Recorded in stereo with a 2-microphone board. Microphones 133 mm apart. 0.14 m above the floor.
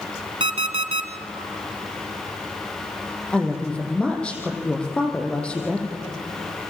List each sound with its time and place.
0.4 s an alarm clock: 45° right (ahead or behind), 1.5 m
3.3 s a woman speaking: 10° left (ahead or behind), 5 m